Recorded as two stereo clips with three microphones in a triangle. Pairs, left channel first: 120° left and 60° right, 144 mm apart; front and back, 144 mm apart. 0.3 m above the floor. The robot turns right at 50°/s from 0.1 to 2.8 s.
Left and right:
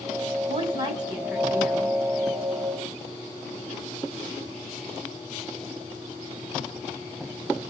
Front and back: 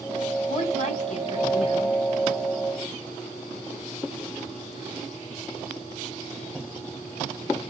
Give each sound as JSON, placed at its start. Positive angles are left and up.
{"t": 0.5, "sound": "a woman speaking", "azimuth_deg": -30, "distance_m": 2.0}